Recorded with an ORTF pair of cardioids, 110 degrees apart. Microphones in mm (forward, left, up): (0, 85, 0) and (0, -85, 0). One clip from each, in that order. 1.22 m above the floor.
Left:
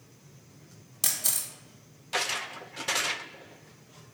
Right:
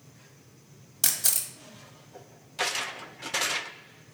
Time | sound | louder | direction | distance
1.0 | a camera shutter | right 2 dB | 25° right | 0.9 m